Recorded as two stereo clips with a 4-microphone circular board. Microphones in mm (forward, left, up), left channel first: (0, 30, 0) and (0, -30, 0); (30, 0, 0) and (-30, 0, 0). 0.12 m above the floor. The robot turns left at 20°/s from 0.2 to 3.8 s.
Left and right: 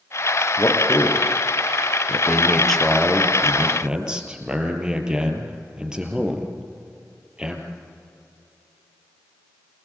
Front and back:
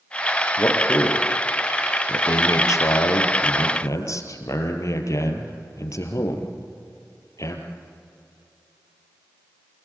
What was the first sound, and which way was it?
A man speaking, 50° left.